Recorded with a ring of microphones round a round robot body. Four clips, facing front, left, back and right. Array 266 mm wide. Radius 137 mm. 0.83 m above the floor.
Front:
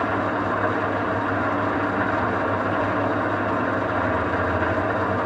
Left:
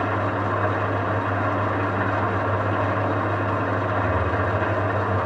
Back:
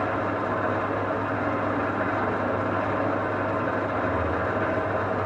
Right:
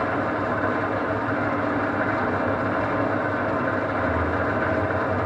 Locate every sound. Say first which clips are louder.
0.0 s an engine running: even, front 3 dB; 55° left, 3 m